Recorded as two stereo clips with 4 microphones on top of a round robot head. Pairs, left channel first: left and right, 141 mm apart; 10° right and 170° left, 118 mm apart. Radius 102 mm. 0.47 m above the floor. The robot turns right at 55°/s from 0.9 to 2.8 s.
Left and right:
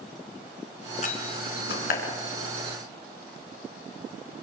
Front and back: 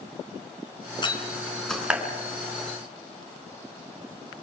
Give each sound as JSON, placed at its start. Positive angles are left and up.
{"t": 1.0, "sound": "a door slam", "azimuth_deg": 40, "distance_m": 4.5}